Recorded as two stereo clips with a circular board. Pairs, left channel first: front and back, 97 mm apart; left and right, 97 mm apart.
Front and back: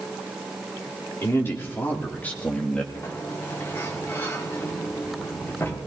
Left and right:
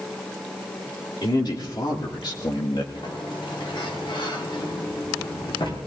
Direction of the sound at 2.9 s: 60° left.